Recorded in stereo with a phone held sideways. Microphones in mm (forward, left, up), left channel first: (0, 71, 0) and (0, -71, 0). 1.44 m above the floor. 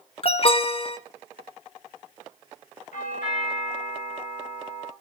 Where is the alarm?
40° left (ahead or behind), 0.7 m.